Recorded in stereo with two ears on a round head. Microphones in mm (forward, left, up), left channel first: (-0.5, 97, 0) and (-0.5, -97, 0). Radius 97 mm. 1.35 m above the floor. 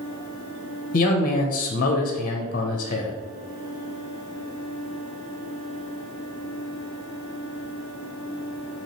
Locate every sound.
0.9 s a man speaking: 40° left (ahead or behind), 0.7 m